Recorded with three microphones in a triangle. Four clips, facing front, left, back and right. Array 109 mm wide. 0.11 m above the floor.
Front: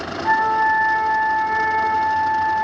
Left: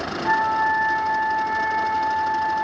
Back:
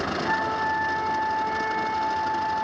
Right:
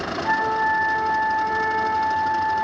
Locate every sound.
0.2 s a flute: 15° left, 0.7 m